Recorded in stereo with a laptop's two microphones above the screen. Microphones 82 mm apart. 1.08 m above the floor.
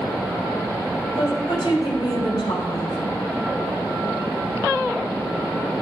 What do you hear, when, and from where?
1.2 s a woman speaking: 85° left, 6 m